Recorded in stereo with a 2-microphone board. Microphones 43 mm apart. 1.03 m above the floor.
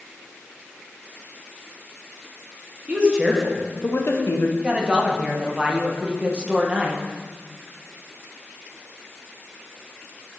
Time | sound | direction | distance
2.9 | a woman speaking | 25° right (ahead or behind) | 1.3 m
4.6 | a man speaking | 25° right (ahead or behind) | 0.8 m